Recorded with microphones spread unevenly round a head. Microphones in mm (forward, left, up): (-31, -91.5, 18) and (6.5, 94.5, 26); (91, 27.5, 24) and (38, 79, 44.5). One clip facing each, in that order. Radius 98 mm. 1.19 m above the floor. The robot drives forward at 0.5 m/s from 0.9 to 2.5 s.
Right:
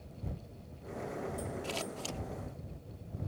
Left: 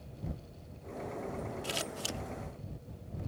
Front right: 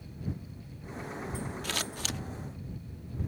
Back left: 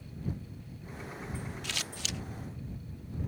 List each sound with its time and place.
1.6 s scissors: straight ahead; by 2.2 s 5° left